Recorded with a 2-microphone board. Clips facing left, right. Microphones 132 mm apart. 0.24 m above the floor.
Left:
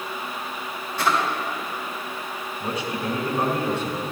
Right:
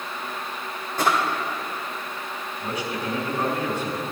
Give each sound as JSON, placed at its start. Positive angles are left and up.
{"t": 1.0, "sound": "a drawer", "side_deg": -45, "distance_m": 3.5}
{"t": 2.6, "sound": "a man speaking", "side_deg": 25, "distance_m": 2.0}